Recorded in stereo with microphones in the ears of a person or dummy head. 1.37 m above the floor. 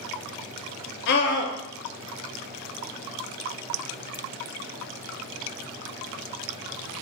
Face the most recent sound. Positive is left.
turn(degrees=60)  # may be behind; listen again after turning